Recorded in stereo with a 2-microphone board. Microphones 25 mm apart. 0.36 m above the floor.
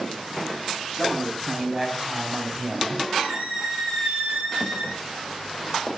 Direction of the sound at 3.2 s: 75° right (ahead or behind).